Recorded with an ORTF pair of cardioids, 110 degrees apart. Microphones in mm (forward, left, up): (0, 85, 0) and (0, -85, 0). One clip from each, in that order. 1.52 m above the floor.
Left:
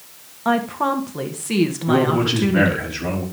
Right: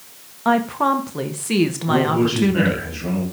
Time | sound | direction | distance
0.5 | a woman speaking | 5° right | 1.4 m
1.9 | a man speaking | 40° left | 7.5 m